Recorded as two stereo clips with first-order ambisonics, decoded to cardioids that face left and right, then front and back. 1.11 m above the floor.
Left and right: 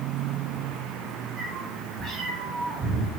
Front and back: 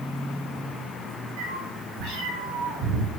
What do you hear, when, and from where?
1.4 s a cat meowing: 160° right, 5 m; by 3.1 s 145° right, 5 m